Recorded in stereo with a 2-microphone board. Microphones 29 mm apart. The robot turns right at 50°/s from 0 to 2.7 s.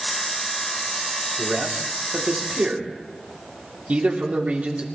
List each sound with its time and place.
1.4 s a man speaking: 50° right (ahead or behind), 2.5 m; by 4.8 s 55° right (ahead or behind), 2.5 m